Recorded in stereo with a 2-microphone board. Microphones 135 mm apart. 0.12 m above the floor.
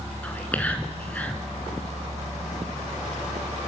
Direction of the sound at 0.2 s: 10° left (ahead or behind).